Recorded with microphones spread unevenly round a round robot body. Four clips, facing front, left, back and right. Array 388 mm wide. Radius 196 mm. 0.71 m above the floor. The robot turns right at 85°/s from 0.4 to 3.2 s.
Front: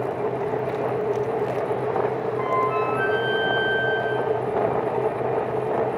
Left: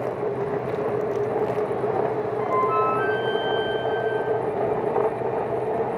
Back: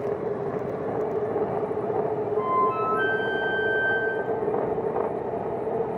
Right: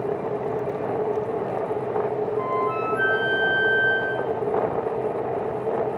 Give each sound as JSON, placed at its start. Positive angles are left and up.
{"t": 2.4, "sound": "a flute", "azimuth_deg": -165, "distance_m": 3.0}